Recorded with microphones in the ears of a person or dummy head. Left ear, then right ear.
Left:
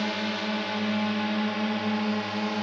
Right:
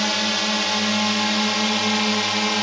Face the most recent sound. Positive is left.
turn(degrees=-60)  # may be behind; listen again after turning